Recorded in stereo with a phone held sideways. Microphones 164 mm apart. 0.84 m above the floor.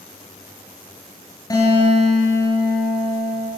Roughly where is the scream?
No scream in this recording.